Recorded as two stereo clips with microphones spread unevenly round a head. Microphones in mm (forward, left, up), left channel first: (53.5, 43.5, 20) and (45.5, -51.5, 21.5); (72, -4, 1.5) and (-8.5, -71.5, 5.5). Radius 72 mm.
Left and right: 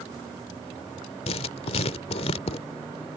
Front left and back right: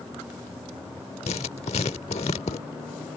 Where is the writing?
80° left.